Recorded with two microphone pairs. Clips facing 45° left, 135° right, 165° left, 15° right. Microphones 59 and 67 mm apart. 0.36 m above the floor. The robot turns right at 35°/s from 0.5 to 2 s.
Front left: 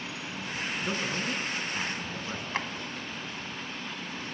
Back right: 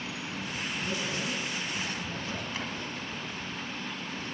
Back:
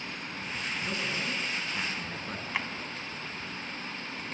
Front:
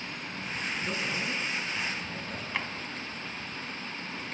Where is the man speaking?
65° left, 3.5 m; by 2.4 s 105° left, 3.5 m.